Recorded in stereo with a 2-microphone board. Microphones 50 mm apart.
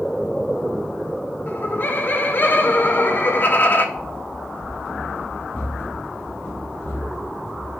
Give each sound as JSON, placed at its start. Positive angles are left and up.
{"t": 1.5, "sound": "laughter", "side_deg": 40, "distance_m": 1.0}
{"t": 4.0, "sound": "running footsteps", "side_deg": 20, "distance_m": 3.5}